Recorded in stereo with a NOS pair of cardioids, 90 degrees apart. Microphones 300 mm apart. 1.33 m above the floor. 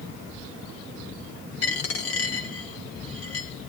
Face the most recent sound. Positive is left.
turn(degrees=55)